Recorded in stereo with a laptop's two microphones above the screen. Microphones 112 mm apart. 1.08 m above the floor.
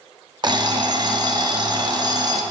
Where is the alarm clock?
40° right (ahead or behind), 0.6 m.